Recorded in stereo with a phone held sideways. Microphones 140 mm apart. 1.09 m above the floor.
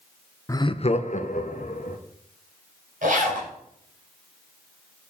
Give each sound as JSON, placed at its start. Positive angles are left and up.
{"t": 0.5, "sound": "laughter", "side_deg": 20, "distance_m": 0.6}
{"t": 3.0, "sound": "a zipper", "side_deg": -65, "distance_m": 5.5}